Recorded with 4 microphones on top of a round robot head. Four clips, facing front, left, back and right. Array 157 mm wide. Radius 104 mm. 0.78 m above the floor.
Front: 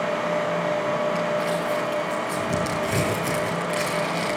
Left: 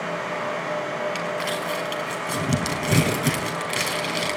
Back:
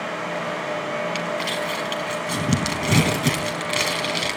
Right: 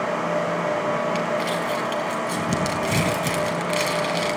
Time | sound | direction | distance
1.1 | crumpling | 170° left | 4 m